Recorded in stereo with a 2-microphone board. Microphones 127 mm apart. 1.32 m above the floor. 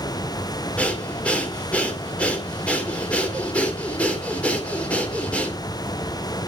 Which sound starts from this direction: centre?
Breathing, at 0.8 s.